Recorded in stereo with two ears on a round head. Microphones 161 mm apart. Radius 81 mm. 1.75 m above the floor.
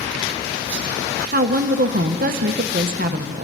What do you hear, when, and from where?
1.3 s a woman speaking: 50° right (ahead or behind), 1.1 m